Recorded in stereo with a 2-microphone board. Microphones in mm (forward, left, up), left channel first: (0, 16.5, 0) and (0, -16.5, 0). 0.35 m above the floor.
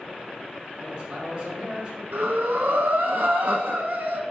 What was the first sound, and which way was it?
A man speaking, 30° right (ahead or behind).